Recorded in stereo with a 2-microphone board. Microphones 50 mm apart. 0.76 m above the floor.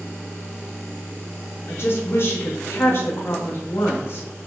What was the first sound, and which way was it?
A woman speaking, 50° left (ahead or behind).